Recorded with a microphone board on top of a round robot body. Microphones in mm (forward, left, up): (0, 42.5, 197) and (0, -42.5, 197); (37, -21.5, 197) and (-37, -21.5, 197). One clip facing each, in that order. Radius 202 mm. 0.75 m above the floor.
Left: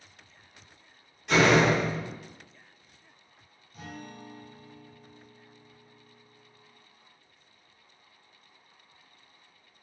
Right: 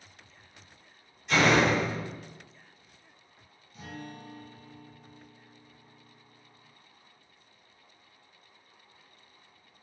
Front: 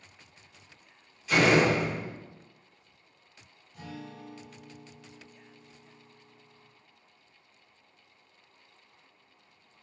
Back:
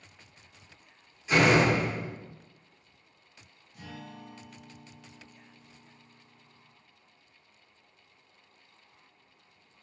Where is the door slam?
110° left, 1.3 m.